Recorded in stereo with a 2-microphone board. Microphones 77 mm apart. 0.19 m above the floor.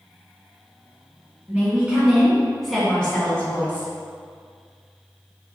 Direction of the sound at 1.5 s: 15° right (ahead or behind).